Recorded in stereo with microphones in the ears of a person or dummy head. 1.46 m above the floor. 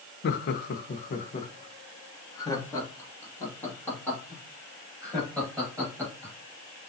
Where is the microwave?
I don't hear a microwave.